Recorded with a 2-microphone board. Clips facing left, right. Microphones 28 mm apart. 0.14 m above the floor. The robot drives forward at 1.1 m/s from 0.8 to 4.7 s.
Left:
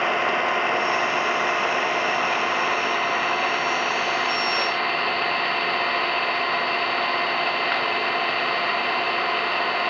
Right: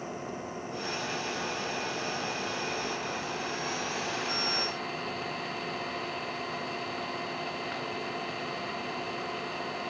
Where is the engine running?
75° left (ahead or behind); by 9.9 s 50° left (ahead or behind).